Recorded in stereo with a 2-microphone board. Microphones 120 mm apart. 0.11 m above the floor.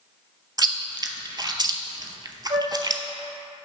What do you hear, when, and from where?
0.6 s chewing: 35° right (ahead or behind), 0.6 m
2.5 s a flute: 70° right (ahead or behind), 1.3 m